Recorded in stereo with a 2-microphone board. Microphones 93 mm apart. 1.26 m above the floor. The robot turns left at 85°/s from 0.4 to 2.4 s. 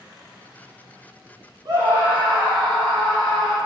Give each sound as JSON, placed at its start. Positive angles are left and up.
{"t": 1.6, "sound": "a scream", "azimuth_deg": -120, "distance_m": 1.5}